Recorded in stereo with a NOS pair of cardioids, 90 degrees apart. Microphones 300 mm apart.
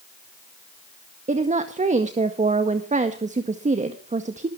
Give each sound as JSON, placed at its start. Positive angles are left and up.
{"t": 1.3, "sound": "a woman speaking", "azimuth_deg": -25, "distance_m": 1.8}